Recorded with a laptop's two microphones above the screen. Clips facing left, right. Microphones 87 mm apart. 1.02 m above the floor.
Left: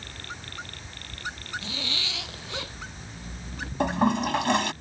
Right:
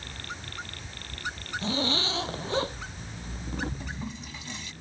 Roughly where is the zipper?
Right.